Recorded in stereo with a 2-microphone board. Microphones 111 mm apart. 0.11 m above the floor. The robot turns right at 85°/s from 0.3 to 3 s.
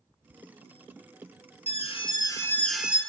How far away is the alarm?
About 1.6 m.